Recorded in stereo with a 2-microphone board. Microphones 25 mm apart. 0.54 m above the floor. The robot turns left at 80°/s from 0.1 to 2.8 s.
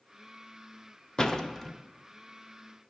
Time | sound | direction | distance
1.2 | a door slam | 30° left (ahead or behind) | 0.5 m